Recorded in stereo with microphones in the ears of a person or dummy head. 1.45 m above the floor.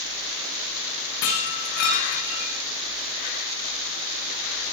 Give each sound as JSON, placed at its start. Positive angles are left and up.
{"t": 1.2, "sound": "breaking glass", "side_deg": 60, "distance_m": 8.0}